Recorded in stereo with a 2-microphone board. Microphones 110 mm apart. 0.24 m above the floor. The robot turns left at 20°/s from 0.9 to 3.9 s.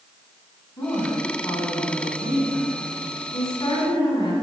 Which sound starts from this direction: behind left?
A woman speaking, at 0.8 s.